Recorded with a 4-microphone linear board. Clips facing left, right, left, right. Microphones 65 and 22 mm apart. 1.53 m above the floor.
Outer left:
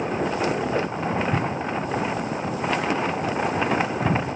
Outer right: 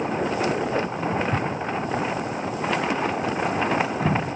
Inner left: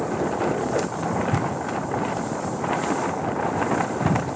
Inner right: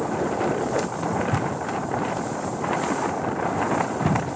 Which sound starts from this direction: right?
Footsteps, at 1.1 s.